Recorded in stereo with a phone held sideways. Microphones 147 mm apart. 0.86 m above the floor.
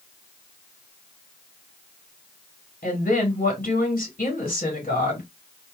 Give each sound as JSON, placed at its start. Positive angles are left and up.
{"t": 2.8, "sound": "a woman speaking", "side_deg": 75, "distance_m": 1.9}